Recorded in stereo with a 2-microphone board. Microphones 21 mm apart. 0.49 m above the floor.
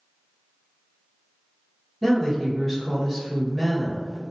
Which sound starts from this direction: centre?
A woman speaking, at 2.0 s.